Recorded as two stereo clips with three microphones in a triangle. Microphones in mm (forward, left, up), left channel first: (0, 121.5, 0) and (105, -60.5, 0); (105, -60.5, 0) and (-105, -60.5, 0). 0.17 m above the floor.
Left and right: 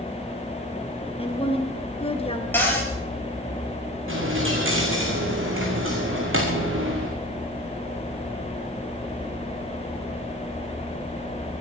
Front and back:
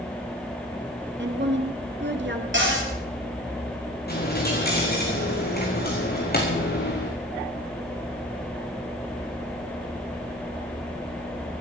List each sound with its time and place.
1.2 s a woman speaking: straight behind, 2 m
2.5 s a cupboard door: 160° right, 3.5 m
4.1 s a dropped coin: 45° right, 3.5 m